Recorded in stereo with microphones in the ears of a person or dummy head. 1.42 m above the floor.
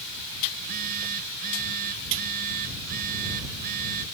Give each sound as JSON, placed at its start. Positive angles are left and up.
{"t": 0.5, "sound": "a phone buzzing", "side_deg": -50}